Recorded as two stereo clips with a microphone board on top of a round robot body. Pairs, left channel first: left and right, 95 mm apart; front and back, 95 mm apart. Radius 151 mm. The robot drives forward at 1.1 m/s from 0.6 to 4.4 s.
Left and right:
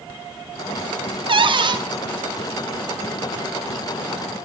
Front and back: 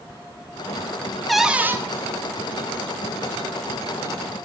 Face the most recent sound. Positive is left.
turn(degrees=-165)